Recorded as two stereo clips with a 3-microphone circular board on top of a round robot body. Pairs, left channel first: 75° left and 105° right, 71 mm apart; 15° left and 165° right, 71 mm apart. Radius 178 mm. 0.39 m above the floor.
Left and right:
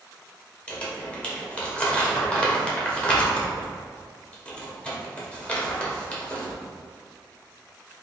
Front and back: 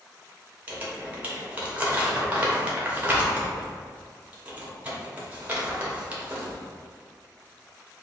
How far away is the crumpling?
About 1.4 m.